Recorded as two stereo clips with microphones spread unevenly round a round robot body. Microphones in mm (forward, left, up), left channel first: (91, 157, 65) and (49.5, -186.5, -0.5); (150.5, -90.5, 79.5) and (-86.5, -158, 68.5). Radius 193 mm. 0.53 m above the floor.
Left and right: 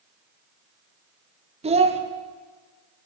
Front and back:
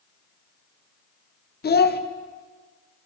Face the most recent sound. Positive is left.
turn(degrees=-35)